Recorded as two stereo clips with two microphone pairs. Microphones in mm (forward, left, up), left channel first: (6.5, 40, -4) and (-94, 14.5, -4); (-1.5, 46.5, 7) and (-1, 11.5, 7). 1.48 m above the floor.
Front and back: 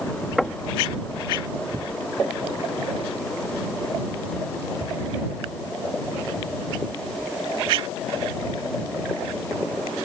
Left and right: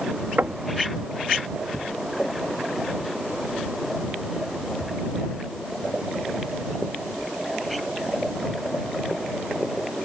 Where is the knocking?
75° right.